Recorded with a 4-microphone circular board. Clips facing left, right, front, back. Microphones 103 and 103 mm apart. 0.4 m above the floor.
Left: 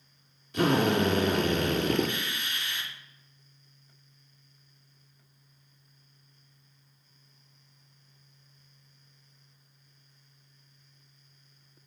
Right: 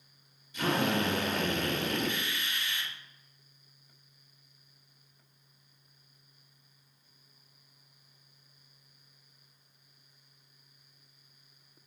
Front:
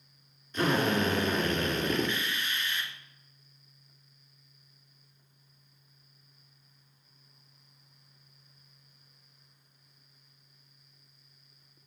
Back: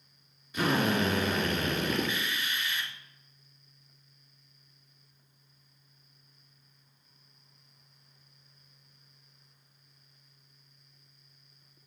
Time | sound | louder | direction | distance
0.5 | a drill | left 5 dB, even | 100° left | 3 m